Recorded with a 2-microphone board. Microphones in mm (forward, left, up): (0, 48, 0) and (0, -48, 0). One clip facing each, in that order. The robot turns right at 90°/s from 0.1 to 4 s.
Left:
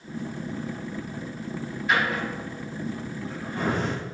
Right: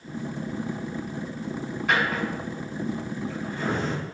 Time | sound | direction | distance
1.9 | a drawer | 80° right | 4 m